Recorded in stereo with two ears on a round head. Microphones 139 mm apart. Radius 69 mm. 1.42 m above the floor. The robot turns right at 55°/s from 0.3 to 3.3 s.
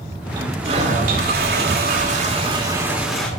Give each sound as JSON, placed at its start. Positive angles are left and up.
{"t": 0.3, "sound": "a toilet flushing", "azimuth_deg": -155, "distance_m": 2.5}